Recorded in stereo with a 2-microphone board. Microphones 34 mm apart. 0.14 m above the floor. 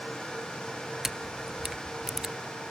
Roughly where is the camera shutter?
Centre.